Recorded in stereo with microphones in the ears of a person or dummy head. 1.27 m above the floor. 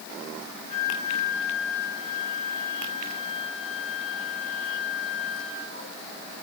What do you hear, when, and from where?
0.7 s a flute: 5° right (ahead or behind), 4.5 m